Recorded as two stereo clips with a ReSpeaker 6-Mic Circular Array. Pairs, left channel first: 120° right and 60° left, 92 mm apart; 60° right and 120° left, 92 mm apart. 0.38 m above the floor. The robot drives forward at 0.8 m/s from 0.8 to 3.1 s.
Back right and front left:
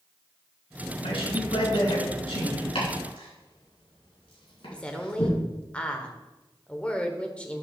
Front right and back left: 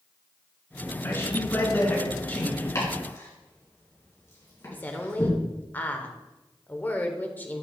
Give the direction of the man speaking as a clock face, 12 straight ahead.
4 o'clock.